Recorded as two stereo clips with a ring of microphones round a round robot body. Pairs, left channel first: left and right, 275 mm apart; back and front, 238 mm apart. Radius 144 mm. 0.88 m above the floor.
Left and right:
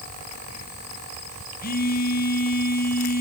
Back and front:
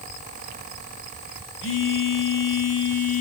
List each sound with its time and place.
1.6 s a phone buzzing: 150° left, 3.5 m